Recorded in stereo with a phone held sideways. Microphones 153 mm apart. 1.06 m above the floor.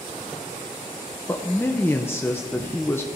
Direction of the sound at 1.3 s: 15° left (ahead or behind).